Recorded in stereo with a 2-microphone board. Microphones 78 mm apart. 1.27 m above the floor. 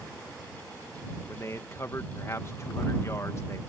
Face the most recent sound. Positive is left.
turn(degrees=35)  # may be behind; listen again after turning